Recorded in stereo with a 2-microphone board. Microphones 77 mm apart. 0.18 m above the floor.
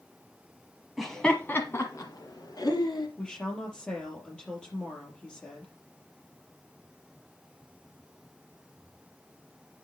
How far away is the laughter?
About 1.2 m.